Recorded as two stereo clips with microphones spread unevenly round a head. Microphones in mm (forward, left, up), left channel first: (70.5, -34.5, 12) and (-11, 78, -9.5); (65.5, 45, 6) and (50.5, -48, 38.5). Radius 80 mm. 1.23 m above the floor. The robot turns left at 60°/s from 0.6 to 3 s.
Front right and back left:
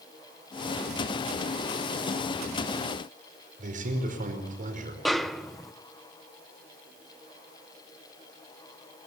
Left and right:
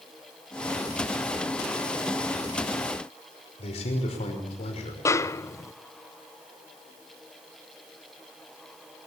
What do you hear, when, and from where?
3.6 s a man speaking: 95° left, 5.5 m
5.0 s a snare drum: 40° left, 0.8 m